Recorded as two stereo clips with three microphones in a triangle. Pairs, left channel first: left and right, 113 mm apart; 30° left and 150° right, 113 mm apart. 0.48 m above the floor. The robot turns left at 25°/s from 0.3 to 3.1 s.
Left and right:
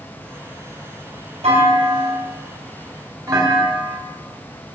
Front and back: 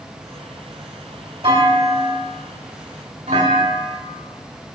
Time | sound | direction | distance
1.4 | a clunk | 105° right | 2.5 m